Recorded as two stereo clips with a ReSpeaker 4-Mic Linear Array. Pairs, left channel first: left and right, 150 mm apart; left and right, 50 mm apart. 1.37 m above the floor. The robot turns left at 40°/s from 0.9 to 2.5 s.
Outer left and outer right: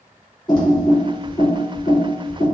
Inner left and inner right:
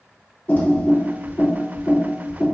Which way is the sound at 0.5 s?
30° left (ahead or behind).